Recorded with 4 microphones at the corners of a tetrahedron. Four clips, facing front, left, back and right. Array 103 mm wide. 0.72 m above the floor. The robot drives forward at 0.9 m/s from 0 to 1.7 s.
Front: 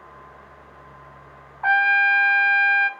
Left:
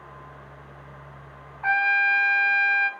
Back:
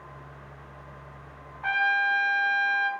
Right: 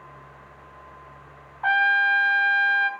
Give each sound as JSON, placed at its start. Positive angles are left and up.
{"t": 1.6, "sound": "a trumpet", "azimuth_deg": -30, "distance_m": 1.4}